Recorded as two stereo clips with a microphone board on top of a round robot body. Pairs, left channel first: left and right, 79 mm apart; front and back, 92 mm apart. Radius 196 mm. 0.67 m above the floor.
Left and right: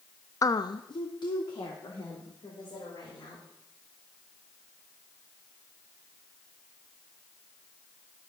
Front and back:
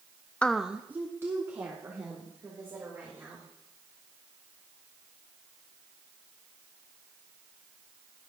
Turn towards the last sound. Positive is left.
turn(degrees=120)